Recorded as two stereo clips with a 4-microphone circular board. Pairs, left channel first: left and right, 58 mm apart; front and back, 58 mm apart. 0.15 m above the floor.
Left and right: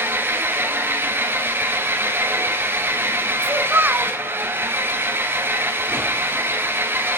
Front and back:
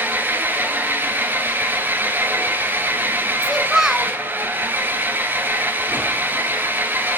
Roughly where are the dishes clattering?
No dishes clattering in this recording.